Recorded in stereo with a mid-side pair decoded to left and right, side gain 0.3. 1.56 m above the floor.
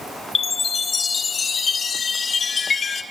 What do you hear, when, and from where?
0.3 s a chime: 60° left, 1.2 m